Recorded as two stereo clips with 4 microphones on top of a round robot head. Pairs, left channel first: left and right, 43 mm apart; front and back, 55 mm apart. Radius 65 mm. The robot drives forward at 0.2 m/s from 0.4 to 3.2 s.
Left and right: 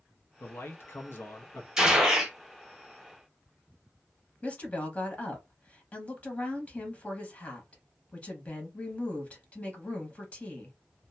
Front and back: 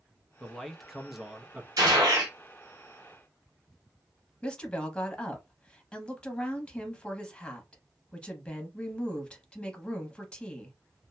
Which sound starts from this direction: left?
A man speaking, at 0.4 s.